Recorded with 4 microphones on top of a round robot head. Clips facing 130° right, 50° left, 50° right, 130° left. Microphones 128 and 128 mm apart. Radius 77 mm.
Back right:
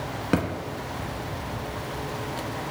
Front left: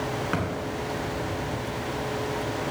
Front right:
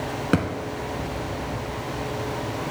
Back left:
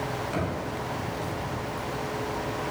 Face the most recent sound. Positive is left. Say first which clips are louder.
# back right 8 dB, front right 9 dB
turn(degrees=-75)